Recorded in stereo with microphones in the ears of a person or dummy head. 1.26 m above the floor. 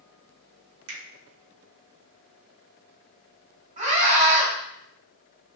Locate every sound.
0.9 s a finger snap: 85° right, 1.1 m
3.8 s a scream: 40° right (ahead or behind), 1.4 m